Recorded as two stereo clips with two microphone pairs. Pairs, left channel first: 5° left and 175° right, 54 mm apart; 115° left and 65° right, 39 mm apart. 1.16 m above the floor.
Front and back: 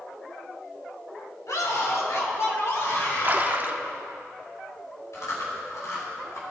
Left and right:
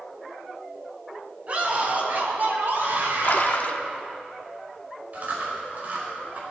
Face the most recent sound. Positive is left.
turn(degrees=-15)